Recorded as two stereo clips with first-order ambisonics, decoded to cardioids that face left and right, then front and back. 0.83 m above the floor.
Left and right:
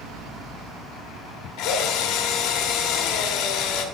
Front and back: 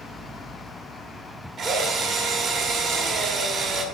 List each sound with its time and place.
1.6 s a drill: 125° left, 1.2 m